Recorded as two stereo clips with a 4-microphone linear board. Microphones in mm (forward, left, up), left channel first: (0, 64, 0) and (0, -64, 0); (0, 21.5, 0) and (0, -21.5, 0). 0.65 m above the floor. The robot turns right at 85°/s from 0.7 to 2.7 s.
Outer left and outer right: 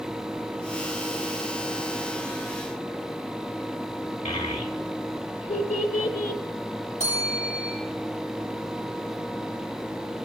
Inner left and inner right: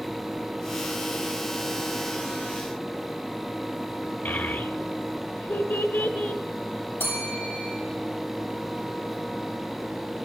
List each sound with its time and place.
4.2 s a child speaking: 75° left (ahead or behind), 1.5 m
7.0 s a bell: 75° left (ahead or behind), 7 m